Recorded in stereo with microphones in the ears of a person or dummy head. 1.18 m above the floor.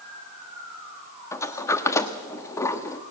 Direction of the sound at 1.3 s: 15° left (ahead or behind).